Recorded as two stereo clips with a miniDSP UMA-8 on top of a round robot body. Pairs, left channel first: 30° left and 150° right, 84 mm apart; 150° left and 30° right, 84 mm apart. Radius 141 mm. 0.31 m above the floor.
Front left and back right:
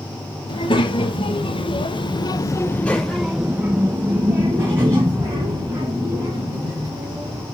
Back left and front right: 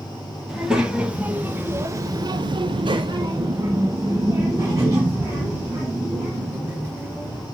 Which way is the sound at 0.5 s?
55° left.